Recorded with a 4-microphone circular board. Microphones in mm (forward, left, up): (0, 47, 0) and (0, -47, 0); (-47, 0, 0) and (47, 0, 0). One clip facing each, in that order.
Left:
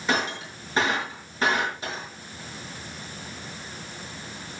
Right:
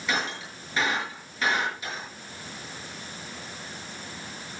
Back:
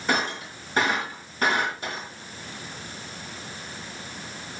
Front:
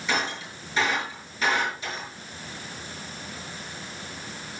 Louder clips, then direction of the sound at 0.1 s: Left 3 dB, back 2 dB; 140° left.